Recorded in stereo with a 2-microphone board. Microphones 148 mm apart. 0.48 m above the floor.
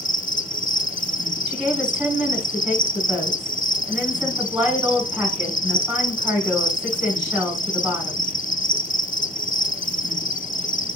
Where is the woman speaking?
5° right (ahead or behind), 4 m.